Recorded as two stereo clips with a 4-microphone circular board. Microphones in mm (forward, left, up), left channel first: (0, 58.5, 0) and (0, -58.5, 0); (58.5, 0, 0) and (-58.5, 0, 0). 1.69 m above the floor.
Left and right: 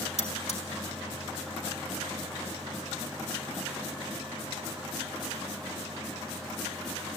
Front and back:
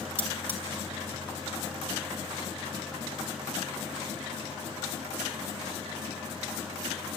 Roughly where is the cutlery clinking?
Left.